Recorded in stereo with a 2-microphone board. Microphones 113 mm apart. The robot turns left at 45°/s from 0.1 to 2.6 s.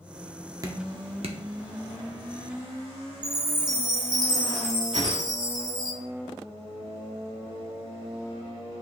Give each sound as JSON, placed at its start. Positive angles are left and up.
{"t": 0.6, "sound": "dripping", "side_deg": -30, "distance_m": 0.8}
{"t": 3.2, "sound": "a chime", "side_deg": -35, "distance_m": 1.4}
{"t": 4.9, "sound": "a whoosh", "side_deg": -70, "distance_m": 1.2}